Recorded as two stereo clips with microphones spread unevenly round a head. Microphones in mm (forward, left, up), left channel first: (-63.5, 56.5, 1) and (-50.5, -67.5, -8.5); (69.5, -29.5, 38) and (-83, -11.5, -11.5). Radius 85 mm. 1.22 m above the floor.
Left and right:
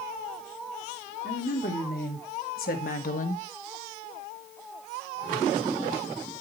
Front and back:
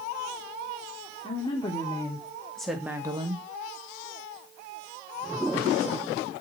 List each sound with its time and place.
1.2 s a woman speaking: 55° left, 3 m; by 3.5 s 120° left, 1.3 m